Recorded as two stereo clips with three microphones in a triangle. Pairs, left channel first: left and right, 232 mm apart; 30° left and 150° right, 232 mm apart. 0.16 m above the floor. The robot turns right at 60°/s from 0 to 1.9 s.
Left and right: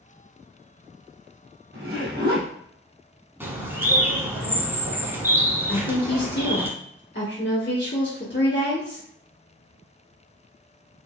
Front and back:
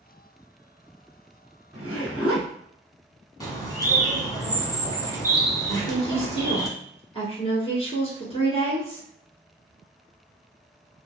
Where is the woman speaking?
85° left, 1.8 m.